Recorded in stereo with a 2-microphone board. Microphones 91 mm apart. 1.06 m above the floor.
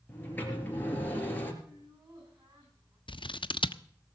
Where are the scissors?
65° left (ahead or behind), 0.5 m.